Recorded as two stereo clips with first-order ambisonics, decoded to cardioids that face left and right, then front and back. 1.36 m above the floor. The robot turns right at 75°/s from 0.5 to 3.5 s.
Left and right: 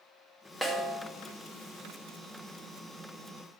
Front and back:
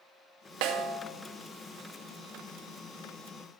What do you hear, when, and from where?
0.6 s a snare drum: straight behind, 0.7 m; by 1.0 s 150° right, 0.7 m